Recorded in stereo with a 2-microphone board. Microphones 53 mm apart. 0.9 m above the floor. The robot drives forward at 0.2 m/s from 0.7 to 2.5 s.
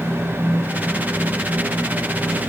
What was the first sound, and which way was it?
Only background noise.